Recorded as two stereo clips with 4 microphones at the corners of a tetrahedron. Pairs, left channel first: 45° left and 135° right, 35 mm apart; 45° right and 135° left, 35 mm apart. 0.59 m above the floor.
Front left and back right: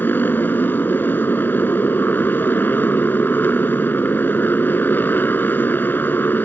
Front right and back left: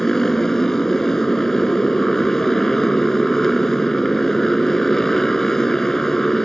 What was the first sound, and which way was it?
A motorcycle, 35° left.